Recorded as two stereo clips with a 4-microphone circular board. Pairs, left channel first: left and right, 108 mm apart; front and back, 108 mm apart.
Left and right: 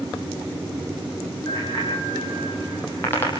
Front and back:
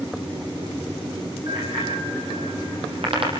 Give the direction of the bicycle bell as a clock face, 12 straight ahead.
7 o'clock.